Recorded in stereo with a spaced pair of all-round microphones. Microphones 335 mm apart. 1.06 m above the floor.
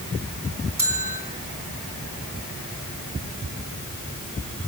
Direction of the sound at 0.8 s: 70° right (ahead or behind).